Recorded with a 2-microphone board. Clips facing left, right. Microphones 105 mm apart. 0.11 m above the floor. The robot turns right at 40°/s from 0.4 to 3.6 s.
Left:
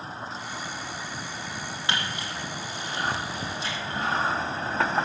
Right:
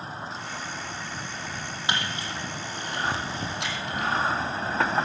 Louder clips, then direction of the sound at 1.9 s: Right 1 dB; 20° right (ahead or behind).